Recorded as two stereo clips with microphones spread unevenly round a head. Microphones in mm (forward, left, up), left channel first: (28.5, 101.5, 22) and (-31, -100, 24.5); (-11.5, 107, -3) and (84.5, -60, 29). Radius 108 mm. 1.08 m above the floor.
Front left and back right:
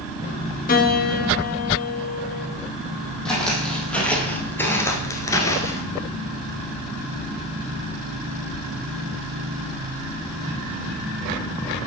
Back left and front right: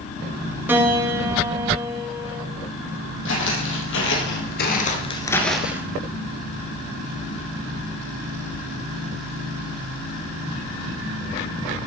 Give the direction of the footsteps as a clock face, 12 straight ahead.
7 o'clock.